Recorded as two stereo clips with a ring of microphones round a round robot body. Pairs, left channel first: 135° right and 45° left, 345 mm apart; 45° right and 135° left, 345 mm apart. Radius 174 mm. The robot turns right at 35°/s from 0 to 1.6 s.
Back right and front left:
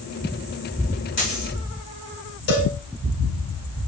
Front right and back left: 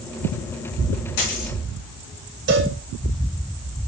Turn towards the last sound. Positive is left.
turn(degrees=-165)